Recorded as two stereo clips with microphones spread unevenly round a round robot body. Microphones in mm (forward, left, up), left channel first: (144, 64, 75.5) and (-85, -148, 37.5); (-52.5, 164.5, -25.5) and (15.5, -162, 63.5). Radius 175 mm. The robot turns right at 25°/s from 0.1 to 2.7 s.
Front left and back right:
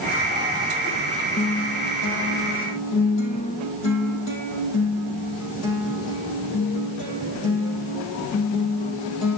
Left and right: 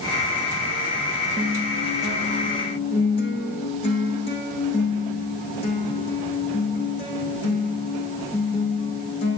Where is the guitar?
5° right, 4 m; by 9.4 s 25° left, 4 m.